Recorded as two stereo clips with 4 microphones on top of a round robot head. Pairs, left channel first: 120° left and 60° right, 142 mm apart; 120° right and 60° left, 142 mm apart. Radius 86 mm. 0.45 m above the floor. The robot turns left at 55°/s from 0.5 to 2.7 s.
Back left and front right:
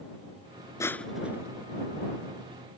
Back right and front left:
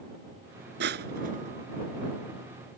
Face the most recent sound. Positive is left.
turn(degrees=-55)